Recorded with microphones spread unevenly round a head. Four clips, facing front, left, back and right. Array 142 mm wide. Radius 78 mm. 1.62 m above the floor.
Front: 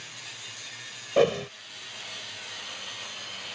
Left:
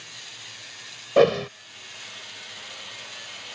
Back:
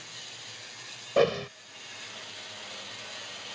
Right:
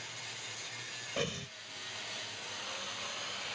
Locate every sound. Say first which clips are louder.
1.2 s a whoosh: left 21 dB, front 2 dB; 75° left